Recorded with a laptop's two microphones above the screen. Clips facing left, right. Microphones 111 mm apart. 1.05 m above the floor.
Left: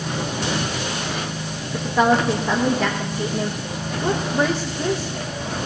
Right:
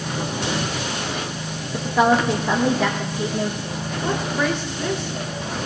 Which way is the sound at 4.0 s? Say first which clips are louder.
Left 2 dB; 35° left (ahead or behind).